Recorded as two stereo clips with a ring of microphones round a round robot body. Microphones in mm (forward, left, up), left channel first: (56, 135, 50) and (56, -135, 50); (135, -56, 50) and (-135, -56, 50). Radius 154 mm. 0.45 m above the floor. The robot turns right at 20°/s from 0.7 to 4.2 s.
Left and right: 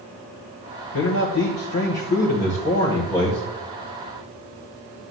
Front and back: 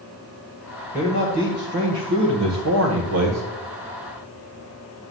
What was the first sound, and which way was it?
A man speaking, 120° left.